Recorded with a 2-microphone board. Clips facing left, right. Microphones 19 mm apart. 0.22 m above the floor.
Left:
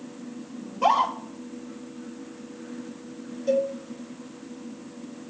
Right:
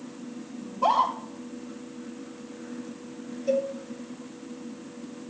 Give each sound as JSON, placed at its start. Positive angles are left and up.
{"t": 0.6, "sound": "a scream", "side_deg": 75, "distance_m": 4.5}
{"t": 3.5, "sound": "a cowbell", "side_deg": 25, "distance_m": 3.0}